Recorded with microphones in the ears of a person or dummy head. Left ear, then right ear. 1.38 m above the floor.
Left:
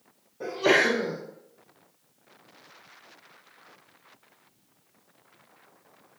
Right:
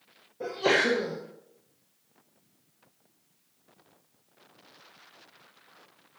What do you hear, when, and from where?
0.4 s a sneeze: 5° right (ahead or behind), 1.0 m